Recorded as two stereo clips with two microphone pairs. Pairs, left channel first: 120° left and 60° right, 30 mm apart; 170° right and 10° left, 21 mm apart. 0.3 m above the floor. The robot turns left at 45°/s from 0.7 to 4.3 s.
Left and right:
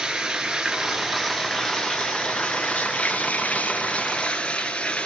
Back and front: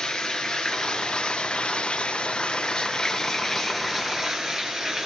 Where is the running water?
130° right, 4.5 m; by 5.1 s 65° left, 4.5 m.